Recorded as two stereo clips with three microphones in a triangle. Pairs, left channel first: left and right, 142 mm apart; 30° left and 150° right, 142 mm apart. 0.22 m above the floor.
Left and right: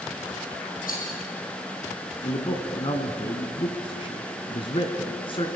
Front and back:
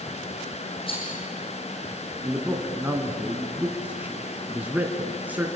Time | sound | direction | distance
0.9 | a rattle | 80° left | 8 m
2.2 | a man speaking | 135° left | 1.8 m